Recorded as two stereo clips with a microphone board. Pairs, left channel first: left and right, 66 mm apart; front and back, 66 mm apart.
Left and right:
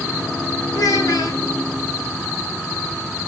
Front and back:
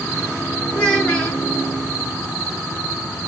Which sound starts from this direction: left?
A child speaking, at 0.7 s.